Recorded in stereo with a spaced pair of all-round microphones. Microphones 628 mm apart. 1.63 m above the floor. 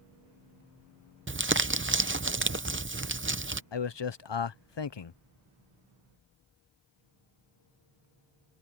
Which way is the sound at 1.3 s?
20° right (ahead or behind).